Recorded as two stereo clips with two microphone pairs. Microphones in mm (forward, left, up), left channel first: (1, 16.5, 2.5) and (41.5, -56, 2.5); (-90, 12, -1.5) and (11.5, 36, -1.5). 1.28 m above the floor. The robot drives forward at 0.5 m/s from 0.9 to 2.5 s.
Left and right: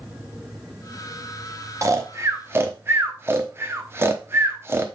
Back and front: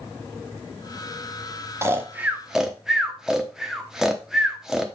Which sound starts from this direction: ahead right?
Snoring, at 1.8 s.